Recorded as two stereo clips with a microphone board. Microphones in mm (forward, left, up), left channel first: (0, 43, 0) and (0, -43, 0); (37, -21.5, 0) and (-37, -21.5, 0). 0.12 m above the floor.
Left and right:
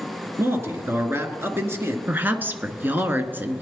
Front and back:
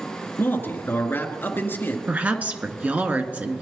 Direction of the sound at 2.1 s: 135° right.